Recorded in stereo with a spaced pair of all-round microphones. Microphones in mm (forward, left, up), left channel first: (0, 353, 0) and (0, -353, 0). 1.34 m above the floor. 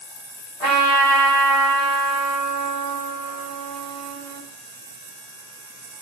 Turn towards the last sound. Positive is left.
turn(degrees=50)  # may be behind; listen again after turning